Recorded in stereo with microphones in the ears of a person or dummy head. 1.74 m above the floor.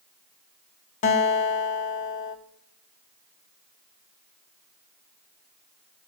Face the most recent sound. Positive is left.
turn(degrees=45)  # may be behind; listen again after turning